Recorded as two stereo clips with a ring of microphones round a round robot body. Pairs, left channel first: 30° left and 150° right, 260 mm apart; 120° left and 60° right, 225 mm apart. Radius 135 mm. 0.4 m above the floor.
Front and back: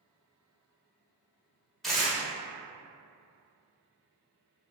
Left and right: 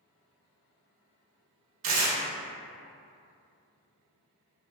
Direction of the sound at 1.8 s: 60° right.